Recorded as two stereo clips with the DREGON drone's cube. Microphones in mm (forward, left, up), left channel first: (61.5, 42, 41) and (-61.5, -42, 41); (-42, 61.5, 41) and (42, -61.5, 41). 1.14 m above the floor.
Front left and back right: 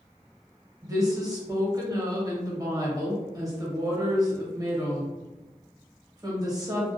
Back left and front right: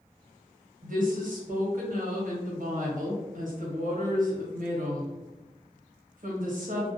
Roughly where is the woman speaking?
Right.